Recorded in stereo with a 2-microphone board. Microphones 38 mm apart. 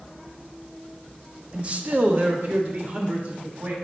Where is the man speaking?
30° right (ahead or behind), 0.7 m; by 3.8 s 45° right (ahead or behind), 2.5 m.